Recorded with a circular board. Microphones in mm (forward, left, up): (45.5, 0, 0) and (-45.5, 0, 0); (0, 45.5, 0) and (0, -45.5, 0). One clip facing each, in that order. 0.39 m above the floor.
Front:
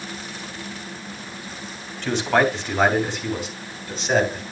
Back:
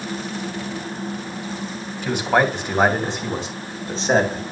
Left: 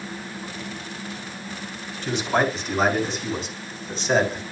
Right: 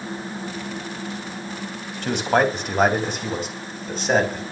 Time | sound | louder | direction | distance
2.0 | a man speaking | back 1 dB, right 3 dB | 100° right | 3 m